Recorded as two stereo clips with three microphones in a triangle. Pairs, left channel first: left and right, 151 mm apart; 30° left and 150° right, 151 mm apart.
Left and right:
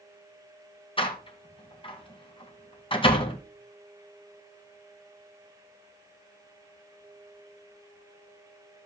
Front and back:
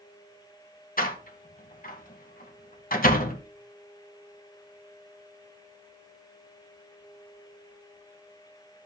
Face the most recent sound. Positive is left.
turn(degrees=40)